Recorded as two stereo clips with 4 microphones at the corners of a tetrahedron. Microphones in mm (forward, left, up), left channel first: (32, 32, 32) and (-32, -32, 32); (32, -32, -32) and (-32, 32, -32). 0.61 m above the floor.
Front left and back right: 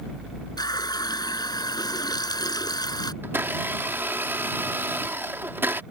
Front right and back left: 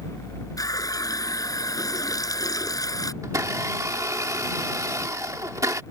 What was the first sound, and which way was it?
A running tap, 5° left.